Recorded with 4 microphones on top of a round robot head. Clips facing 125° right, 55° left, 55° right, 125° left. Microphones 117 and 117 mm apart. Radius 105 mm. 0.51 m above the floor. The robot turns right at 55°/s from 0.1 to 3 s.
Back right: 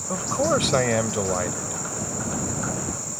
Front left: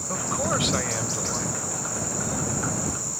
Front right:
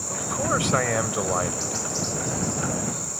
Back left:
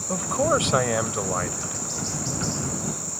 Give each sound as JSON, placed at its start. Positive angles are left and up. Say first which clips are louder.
{"t": 0.1, "sound": "a man speaking", "louder": "back right 5 dB, back left 4 dB", "azimuth_deg": 165}